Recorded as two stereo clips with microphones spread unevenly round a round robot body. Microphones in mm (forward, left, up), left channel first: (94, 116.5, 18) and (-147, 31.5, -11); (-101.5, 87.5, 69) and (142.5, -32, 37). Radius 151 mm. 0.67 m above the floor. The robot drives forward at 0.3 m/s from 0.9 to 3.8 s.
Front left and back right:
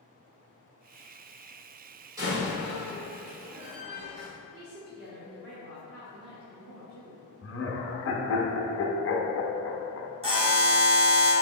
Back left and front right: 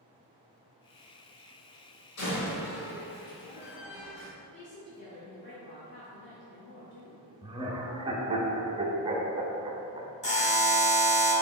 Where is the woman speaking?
170° right, 0.8 m.